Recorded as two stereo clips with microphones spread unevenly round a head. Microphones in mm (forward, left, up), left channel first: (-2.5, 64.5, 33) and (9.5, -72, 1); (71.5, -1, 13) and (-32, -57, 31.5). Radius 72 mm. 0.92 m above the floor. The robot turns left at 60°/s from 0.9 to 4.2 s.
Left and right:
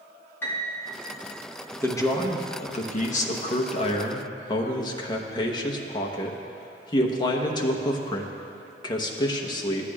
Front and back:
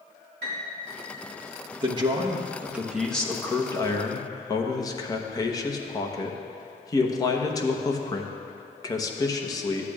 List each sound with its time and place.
0.4 s a piano: 175° left, 1.7 m
1.8 s a man speaking: straight behind, 0.9 m; by 9.9 s 35° left, 0.9 m